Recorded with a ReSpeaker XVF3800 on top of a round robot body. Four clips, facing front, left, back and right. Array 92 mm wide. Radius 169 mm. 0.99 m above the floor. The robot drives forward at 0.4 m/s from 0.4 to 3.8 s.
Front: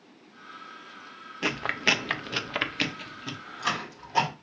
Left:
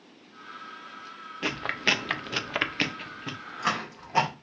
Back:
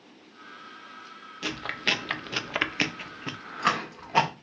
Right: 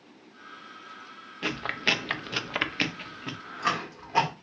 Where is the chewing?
5° left, 0.8 m; by 4.3 s 175° left, 1.0 m.